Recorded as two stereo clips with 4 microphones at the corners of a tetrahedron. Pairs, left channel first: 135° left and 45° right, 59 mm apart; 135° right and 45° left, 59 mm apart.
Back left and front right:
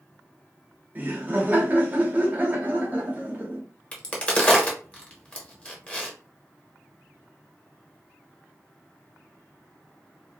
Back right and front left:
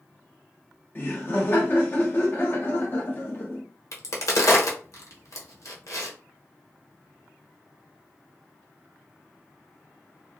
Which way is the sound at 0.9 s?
95° right.